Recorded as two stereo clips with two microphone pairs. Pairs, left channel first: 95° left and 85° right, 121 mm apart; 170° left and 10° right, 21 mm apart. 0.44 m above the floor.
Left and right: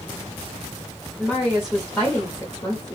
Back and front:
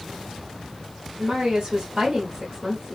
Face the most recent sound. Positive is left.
turn(degrees=50)